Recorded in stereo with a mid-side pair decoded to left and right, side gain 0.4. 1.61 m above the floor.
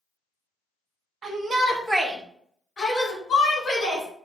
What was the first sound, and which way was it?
A shout, 55° right.